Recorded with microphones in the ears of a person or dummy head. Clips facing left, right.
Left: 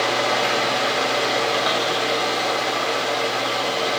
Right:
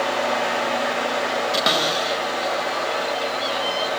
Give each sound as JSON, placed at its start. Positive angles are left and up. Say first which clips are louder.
{"t": 0.0, "sound": "a fan", "louder": "left 1 dB", "side_deg": 55, "distance_m": 5.5}
{"t": 1.5, "sound": "a cupboard door", "louder": "even", "side_deg": -30, "distance_m": 1.8}